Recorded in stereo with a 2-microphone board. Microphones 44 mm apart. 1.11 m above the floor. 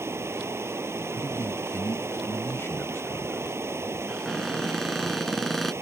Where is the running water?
80° right.